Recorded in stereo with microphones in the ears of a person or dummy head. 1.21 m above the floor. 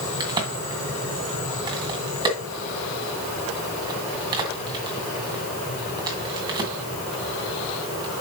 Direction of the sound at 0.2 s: 25° right (ahead or behind).